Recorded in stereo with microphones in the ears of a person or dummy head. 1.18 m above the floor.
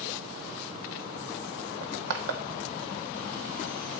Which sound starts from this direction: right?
Crushing, at 1.8 s.